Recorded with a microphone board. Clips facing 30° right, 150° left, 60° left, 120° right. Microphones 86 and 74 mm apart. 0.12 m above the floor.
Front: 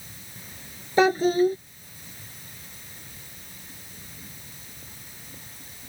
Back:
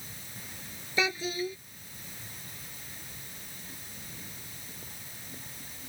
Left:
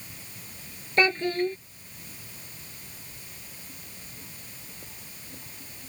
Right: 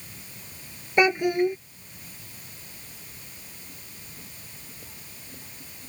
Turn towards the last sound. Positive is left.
turn(degrees=-50)